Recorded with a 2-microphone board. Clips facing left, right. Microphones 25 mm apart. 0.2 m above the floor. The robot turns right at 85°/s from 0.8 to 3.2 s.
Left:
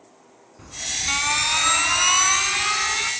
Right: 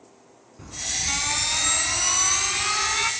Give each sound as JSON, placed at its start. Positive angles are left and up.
{"t": 0.6, "sound": "an alarm", "azimuth_deg": 0, "distance_m": 1.6}